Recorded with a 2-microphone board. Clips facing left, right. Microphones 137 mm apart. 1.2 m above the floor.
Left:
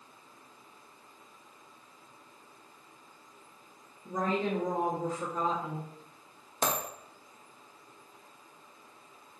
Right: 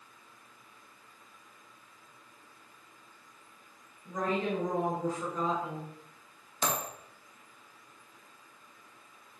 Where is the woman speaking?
35° left (ahead or behind), 1.7 m.